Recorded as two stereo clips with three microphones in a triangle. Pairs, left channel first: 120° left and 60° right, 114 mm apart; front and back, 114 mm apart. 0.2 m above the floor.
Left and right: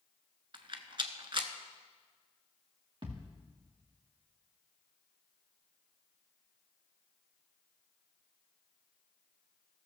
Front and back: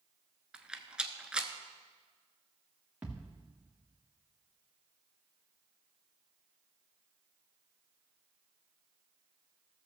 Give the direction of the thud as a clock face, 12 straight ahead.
3 o'clock.